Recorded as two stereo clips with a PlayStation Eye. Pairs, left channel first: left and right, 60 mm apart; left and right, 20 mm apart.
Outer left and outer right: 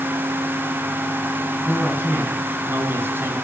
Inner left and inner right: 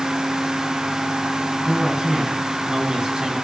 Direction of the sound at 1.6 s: 30° right (ahead or behind).